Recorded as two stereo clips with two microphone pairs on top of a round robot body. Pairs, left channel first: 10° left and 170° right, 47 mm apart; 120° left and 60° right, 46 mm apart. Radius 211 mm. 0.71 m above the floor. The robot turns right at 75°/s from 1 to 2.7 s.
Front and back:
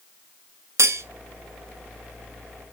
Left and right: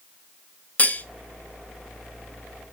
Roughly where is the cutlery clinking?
Behind.